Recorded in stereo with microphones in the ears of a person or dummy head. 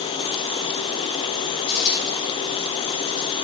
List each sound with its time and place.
1.7 s a dropped coin: 35° left (ahead or behind), 4.5 m